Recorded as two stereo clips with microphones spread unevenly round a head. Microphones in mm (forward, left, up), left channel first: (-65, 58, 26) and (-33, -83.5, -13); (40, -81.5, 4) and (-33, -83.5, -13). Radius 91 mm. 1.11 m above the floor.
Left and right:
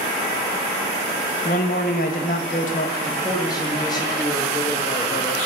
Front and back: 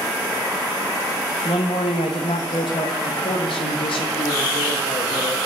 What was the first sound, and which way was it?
A man speaking, 50° left.